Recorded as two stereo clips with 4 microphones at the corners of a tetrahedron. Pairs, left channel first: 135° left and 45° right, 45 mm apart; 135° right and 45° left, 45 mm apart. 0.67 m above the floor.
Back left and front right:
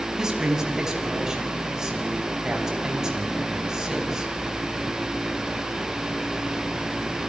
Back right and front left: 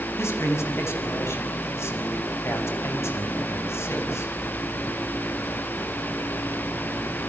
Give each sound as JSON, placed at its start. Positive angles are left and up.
{"t": 0.2, "sound": "a man speaking", "azimuth_deg": -125, "distance_m": 6.0}